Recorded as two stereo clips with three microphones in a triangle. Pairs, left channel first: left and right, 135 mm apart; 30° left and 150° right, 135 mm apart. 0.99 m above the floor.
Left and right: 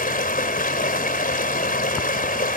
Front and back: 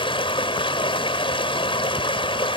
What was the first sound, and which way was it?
Running water, 80° left.